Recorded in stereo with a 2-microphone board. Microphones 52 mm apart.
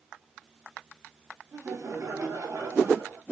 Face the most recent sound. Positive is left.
turn(degrees=-75)  # may be behind; listen again after turning